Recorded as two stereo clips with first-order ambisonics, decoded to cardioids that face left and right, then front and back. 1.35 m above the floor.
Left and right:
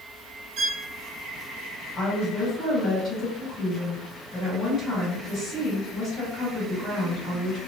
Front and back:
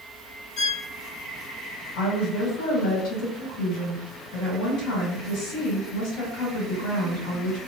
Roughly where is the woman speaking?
Ahead left.